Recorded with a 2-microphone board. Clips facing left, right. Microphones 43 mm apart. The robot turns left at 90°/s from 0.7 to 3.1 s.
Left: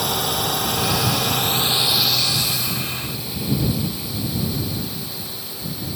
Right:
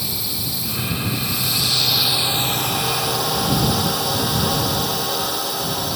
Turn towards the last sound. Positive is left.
turn(degrees=-100)